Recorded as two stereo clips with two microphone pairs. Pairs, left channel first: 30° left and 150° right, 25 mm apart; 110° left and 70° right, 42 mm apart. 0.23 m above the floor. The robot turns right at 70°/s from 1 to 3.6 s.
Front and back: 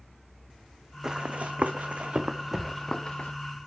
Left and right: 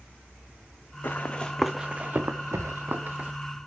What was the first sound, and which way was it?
Running footsteps, 140° left.